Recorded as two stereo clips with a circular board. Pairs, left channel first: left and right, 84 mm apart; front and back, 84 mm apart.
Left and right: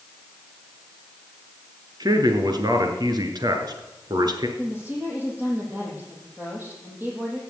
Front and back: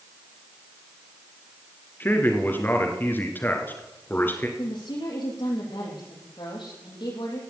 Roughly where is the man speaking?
Ahead right.